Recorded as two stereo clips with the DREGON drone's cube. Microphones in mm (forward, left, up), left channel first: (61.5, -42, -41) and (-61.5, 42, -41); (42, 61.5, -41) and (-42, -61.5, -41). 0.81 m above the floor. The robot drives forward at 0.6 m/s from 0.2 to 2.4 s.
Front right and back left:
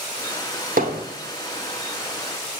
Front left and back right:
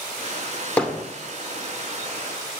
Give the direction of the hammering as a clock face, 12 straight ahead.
7 o'clock.